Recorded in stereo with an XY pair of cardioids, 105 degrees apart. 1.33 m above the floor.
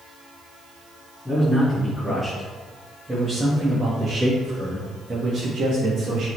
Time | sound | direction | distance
1.2 | a man speaking | 5° left | 2.5 m